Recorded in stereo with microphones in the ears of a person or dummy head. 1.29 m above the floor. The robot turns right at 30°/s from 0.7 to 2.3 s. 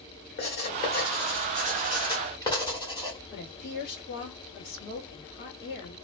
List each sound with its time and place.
0.4 s writing: 45° left (ahead or behind), 1.0 m; by 3.2 s 20° left (ahead or behind), 1.0 m
3.3 s a woman speaking: 50° left (ahead or behind), 1.3 m